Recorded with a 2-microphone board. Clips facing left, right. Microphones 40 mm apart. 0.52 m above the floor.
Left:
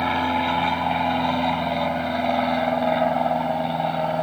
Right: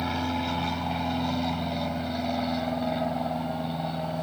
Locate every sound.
0.0 s an aircraft: 40° left (ahead or behind); by 4.2 s 45° left (ahead or behind)